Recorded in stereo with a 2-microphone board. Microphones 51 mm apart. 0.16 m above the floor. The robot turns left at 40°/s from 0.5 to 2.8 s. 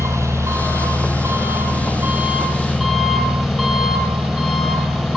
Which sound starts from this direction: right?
An engine running, at 0.0 s.